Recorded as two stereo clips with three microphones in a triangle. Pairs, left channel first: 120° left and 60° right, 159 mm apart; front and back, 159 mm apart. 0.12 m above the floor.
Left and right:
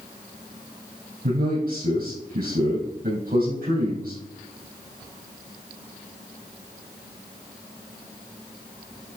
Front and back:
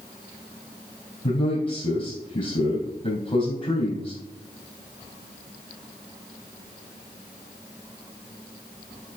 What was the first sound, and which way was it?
A man speaking, 40° right.